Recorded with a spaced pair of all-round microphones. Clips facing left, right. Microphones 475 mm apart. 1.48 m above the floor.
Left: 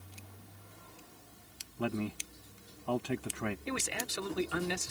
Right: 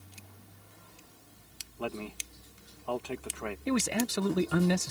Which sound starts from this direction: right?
A man speaking, at 3.7 s.